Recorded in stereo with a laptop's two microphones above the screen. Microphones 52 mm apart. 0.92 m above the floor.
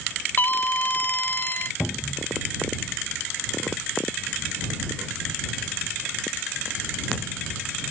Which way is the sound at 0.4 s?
40° left (ahead or behind).